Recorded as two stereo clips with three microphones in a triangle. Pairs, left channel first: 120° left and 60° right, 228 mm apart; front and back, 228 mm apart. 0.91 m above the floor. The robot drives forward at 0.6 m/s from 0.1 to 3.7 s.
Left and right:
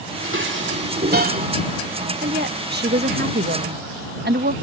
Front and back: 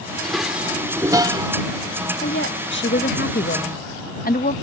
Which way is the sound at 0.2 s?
90° right.